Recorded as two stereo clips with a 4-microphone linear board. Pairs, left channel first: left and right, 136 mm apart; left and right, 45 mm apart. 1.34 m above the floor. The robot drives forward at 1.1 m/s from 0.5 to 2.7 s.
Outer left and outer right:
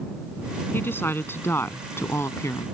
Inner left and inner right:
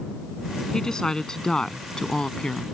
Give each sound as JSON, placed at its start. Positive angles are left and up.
{"t": 0.7, "sound": "a woman speaking", "side_deg": 15}